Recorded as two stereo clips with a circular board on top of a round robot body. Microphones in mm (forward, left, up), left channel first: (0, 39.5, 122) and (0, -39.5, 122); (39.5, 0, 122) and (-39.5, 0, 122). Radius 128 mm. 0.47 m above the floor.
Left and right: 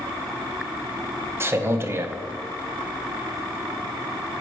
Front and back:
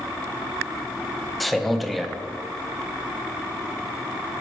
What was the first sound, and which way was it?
A man speaking, 90° right.